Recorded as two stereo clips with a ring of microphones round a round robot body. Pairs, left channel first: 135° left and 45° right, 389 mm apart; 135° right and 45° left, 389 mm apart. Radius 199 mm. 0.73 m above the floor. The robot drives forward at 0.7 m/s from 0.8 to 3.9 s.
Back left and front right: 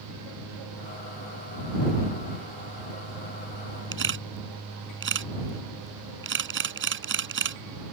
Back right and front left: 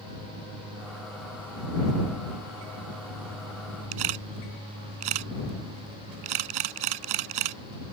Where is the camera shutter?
15° left.